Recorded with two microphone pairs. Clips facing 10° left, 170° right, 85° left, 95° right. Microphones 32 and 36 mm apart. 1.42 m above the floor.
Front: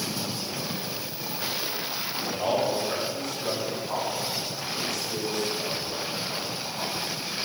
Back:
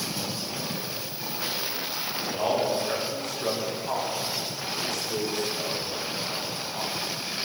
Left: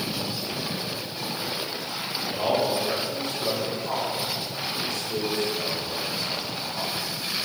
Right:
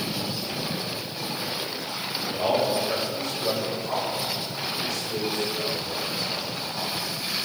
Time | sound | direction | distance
2.2 | a man speaking | 150° left | 5 m